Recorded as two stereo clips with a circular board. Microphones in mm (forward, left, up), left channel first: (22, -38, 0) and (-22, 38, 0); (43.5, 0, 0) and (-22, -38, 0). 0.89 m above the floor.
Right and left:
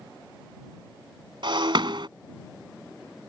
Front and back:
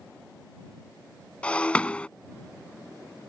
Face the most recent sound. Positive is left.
turn(degrees=105)